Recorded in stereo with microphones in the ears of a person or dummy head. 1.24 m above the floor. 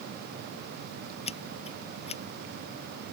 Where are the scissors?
35° left (ahead or behind).